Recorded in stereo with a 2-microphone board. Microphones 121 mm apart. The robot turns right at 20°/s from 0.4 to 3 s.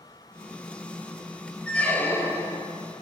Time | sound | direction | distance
1.7 | a squeak | 10° left (ahead or behind) | 0.6 m